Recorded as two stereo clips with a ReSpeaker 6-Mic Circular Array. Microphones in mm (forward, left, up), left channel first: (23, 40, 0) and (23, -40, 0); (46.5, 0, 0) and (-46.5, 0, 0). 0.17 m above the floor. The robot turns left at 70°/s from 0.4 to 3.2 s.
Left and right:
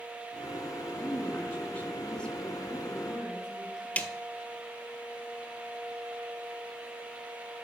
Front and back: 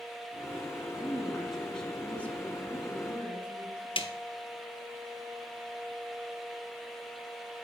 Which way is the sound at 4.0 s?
15° left.